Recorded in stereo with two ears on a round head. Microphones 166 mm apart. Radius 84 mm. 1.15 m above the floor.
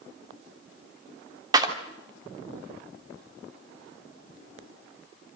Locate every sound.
1.5 s a clap: 20° right (ahead or behind), 3 m